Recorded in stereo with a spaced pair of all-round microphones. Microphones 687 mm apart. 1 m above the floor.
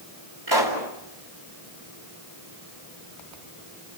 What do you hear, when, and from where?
0.5 s a pop: 35° right (ahead or behind), 4.5 m